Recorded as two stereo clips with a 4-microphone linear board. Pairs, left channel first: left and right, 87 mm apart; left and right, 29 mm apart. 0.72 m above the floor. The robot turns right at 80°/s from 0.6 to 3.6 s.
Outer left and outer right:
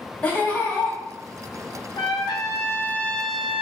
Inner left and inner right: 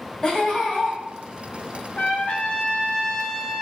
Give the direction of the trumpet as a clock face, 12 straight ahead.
10 o'clock.